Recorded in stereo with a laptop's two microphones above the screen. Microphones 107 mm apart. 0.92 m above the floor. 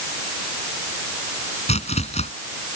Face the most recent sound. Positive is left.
turn(degrees=85)